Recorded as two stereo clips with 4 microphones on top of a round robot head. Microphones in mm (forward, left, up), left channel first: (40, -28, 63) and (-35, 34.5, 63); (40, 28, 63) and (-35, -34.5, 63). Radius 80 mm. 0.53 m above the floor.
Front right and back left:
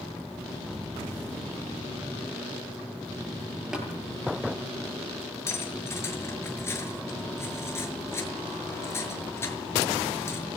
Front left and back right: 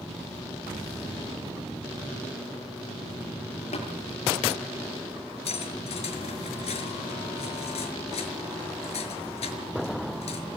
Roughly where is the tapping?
Ahead left.